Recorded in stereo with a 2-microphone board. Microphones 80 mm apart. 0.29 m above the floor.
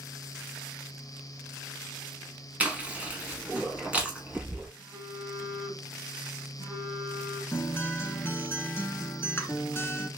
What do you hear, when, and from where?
2.6 s chewing: 20° right (ahead or behind), 1.1 m
4.8 s a phone buzzing: 35° right (ahead or behind), 2 m
7.5 s a guitar: 30° left (ahead or behind), 0.6 m